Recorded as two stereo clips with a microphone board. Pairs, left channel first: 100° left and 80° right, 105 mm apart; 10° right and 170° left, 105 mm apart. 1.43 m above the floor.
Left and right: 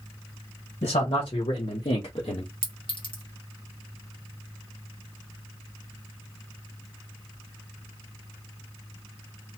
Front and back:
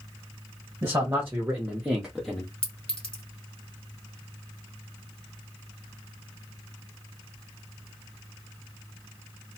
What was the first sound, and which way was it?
A man speaking, 110° left.